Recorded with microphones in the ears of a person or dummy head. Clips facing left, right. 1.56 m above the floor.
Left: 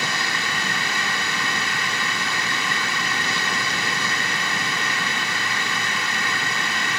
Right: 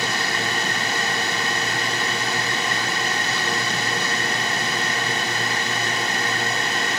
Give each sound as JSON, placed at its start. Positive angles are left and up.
{"t": 0.0, "sound": "a drone", "side_deg": -35}